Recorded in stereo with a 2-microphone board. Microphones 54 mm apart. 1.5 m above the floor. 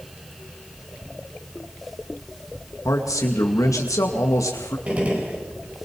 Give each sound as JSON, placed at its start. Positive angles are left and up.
{"t": 2.9, "sound": "a man speaking", "side_deg": 90, "distance_m": 2.0}
{"t": 4.9, "sound": "a gunshot", "side_deg": -25, "distance_m": 4.0}